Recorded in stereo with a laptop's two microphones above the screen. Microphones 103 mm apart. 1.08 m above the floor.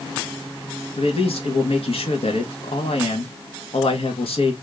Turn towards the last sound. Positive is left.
turn(degrees=70)  # may be behind; listen again after turning